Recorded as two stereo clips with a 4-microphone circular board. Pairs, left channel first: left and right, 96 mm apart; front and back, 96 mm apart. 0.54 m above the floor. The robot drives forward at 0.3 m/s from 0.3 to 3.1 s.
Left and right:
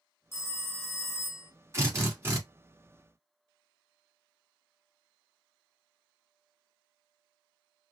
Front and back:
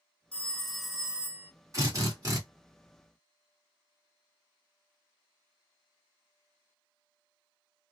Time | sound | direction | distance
0.3 | a phone ringing | 65° left | 0.6 m
1.7 | a drill | 140° right | 1.7 m